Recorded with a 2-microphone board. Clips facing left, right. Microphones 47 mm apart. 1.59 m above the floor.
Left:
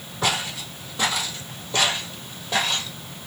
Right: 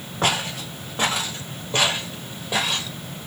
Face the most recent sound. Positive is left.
turn(degrees=-5)  # may be behind; listen again after turning